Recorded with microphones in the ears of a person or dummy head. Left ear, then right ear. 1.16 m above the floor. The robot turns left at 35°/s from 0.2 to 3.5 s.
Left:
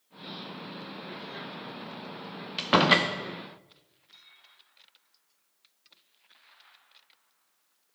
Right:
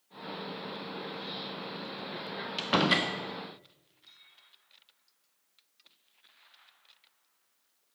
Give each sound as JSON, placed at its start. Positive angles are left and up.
{"t": 2.6, "sound": "a door slam", "side_deg": 10, "distance_m": 0.6}